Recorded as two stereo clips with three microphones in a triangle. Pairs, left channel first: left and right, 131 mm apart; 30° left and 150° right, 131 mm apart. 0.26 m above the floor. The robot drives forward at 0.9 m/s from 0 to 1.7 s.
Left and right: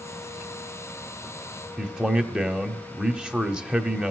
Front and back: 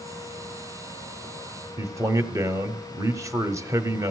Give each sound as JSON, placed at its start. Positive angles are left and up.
{"t": 1.8, "sound": "a man speaking", "azimuth_deg": -160, "distance_m": 0.9}